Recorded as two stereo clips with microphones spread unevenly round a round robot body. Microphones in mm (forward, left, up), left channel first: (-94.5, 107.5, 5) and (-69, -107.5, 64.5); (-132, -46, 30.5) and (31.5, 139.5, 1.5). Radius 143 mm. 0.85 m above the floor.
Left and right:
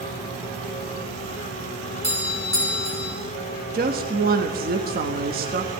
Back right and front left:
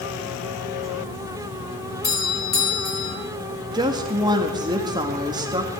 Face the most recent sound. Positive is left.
turn(degrees=-20)